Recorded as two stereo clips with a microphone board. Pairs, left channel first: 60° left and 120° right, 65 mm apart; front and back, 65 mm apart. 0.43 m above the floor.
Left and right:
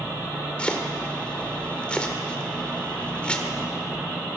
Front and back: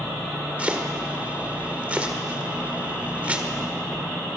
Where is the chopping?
125° left, 1.6 m.